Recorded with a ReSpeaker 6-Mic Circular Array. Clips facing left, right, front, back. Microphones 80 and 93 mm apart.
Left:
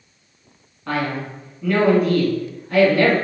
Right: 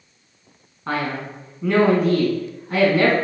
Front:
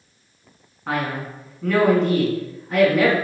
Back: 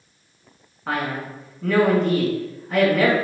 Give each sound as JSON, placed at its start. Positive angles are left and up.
{"t": 0.9, "sound": "a man speaking", "azimuth_deg": -95, "distance_m": 1.1}